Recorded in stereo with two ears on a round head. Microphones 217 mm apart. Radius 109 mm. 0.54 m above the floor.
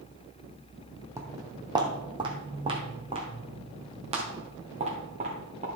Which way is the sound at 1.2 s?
10° right (ahead or behind).